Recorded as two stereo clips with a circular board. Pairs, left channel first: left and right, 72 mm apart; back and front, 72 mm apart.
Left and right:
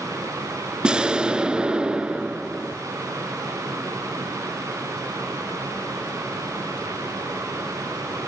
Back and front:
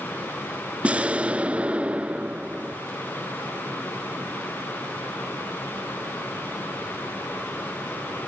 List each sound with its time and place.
0.8 s an explosion: 35° right, 0.8 m